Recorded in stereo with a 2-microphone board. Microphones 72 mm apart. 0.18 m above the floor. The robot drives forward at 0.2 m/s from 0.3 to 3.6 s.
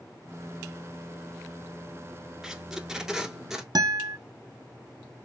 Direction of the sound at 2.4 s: 5° right (ahead or behind).